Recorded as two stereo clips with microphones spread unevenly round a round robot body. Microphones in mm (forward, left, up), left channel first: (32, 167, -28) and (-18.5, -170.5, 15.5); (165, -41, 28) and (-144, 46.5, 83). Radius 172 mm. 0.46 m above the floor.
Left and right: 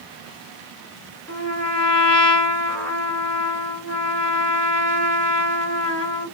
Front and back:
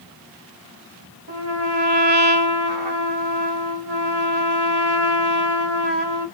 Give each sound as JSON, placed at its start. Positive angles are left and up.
{"t": 1.3, "sound": "a trumpet", "azimuth_deg": 170, "distance_m": 2.0}